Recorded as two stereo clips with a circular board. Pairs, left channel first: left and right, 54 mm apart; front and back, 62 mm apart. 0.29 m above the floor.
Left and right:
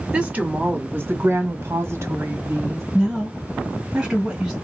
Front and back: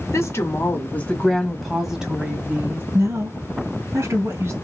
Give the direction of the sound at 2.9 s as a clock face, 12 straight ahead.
6 o'clock.